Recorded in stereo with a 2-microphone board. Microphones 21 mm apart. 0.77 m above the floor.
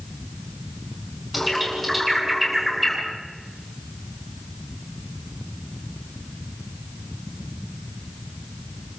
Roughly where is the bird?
Centre.